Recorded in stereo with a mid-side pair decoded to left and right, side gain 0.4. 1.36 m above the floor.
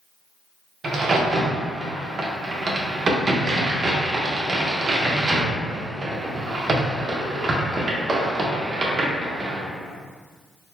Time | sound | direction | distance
0.8 | a crack | 45° right | 1.0 m